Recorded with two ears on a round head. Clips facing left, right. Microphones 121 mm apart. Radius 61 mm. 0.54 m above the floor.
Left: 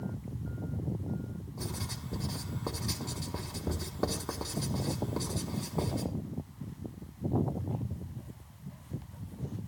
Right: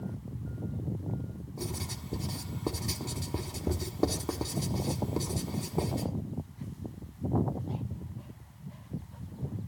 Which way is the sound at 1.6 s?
20° right (ahead or behind).